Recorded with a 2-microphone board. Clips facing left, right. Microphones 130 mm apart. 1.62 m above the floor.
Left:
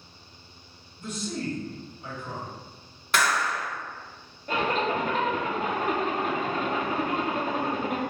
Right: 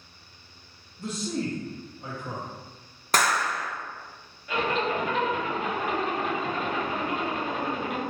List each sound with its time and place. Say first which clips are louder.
1.0 s a man speaking: right 2 dB; 35° right (ahead or behind), 0.8 m
3.1 s a clap: right 1 dB; 40° right (ahead or behind), 0.7 m
4.5 s a zipper: left 1 dB; 40° left (ahead or behind), 0.9 m